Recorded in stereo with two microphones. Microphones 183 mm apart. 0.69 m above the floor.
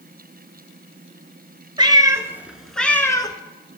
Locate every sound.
1.8 s a cat meowing: 25° right (ahead or behind), 1.0 m; by 3.4 s 25° left (ahead or behind), 0.8 m